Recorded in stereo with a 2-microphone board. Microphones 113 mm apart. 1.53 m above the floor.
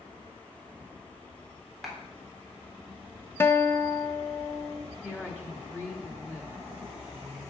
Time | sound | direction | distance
1.8 | a clap | centre (ahead or behind) | 3.5 m
3.4 | a guitar | 20° left (ahead or behind) | 0.8 m
5.0 | a woman speaking | 15° left (ahead or behind) | 3 m